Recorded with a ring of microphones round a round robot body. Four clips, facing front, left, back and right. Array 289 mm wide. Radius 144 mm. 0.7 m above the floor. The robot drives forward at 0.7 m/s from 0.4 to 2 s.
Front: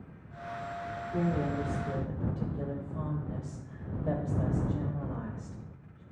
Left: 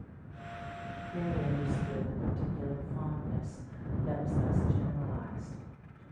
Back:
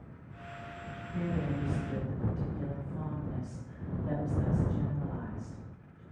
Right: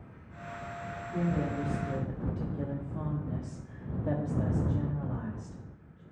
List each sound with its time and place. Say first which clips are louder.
1.1 s a woman speaking: right 3 dB, front 3 dB; 35° right, 1.9 m; by 6.0 s 55° right, 1.5 m